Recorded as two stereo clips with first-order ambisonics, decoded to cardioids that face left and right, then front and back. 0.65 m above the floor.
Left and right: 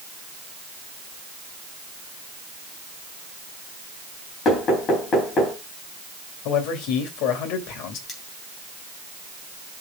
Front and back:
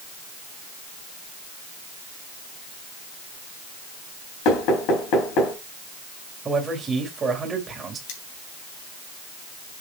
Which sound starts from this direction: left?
A man speaking, at 6.5 s.